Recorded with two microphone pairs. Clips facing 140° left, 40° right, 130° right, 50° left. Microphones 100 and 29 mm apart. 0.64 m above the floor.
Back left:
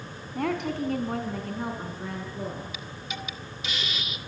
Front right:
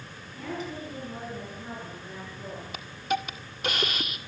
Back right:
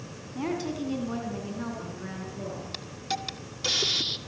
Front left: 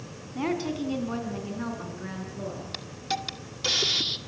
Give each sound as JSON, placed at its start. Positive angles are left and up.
{"t": 0.3, "sound": "a woman speaking", "azimuth_deg": 115, "distance_m": 5.0}
{"t": 2.7, "sound": "a hiss", "azimuth_deg": -30, "distance_m": 1.6}